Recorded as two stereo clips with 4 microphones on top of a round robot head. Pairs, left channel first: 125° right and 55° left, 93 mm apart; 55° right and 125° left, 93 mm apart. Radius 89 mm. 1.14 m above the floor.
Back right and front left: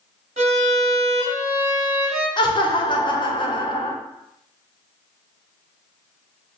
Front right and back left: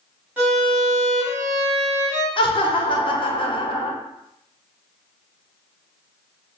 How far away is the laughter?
About 0.8 m.